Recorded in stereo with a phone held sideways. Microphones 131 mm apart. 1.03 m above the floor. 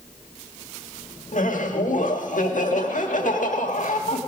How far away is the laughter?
About 1.6 m.